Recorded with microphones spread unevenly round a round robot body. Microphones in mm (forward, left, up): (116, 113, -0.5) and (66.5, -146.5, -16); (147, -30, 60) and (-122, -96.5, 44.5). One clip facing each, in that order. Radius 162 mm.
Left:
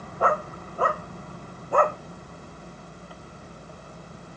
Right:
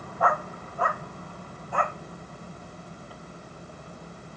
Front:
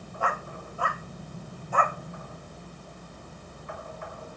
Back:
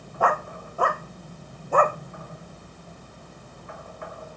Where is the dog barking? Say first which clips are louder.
Left 3 dB, back 8 dB; 145° left; by 2.0 s 135° left.